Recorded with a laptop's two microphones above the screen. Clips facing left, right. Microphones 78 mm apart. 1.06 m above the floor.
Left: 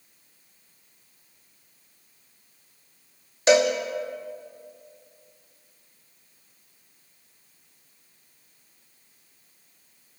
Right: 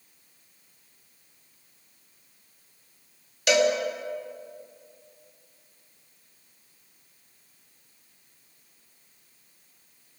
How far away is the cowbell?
About 1.1 m.